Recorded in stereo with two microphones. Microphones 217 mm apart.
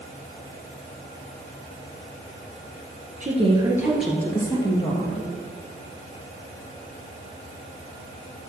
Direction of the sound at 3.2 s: 35° right (ahead or behind).